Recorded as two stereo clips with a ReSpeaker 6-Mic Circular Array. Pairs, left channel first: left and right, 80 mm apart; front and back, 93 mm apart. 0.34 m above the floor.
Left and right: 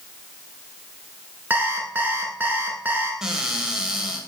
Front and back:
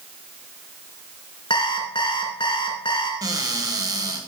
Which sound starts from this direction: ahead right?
An alarm clock, at 1.5 s.